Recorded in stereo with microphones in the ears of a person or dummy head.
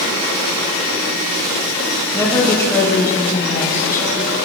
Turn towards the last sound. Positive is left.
turn(degrees=15)  # may be behind; listen again after turning